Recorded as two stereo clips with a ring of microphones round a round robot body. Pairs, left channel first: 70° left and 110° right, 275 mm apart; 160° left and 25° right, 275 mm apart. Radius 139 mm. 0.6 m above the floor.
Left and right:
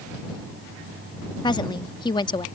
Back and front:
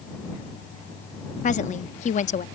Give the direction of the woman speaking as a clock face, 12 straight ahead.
8 o'clock.